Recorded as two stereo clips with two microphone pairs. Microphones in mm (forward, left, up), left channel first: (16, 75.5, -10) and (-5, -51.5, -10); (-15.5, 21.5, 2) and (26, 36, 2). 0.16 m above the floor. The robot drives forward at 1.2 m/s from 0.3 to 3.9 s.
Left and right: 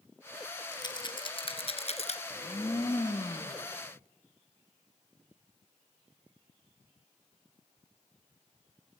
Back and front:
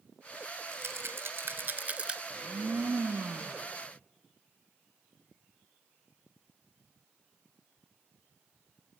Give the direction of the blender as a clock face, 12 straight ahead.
11 o'clock.